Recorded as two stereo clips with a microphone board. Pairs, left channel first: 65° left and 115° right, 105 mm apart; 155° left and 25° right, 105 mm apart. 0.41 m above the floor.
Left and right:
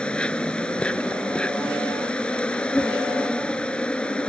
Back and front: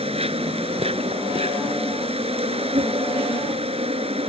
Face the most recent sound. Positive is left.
turn(degrees=-15)